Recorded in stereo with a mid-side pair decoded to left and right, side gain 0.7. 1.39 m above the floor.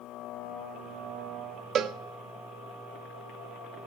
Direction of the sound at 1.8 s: 40° right.